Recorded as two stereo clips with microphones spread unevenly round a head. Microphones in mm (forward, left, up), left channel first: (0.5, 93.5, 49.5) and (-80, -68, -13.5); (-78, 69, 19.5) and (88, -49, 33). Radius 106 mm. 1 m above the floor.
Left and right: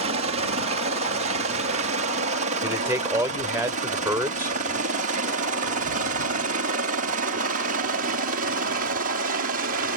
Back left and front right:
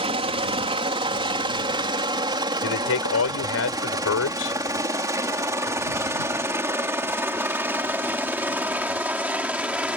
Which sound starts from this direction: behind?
A man speaking, at 2.6 s.